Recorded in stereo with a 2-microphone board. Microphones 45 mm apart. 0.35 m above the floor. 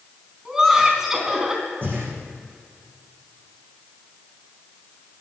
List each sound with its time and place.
0.5 s laughter: 10° right (ahead or behind), 3.5 m
1.8 s breathing: 45° right (ahead or behind), 4 m